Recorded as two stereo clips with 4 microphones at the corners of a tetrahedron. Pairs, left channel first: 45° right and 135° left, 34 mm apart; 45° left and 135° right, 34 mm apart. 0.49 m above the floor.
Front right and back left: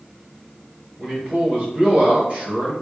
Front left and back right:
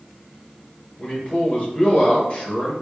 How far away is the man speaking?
About 1.6 m.